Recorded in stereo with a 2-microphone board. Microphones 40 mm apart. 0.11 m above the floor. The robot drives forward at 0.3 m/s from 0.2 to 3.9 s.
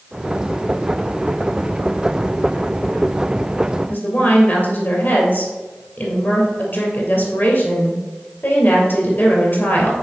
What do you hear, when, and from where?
3.9 s a woman speaking: 55° left (ahead or behind), 2.5 m